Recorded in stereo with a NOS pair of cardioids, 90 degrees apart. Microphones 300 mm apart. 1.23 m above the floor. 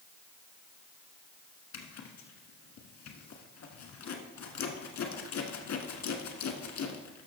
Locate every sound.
1.7 s a zipper: 60° left, 1.6 m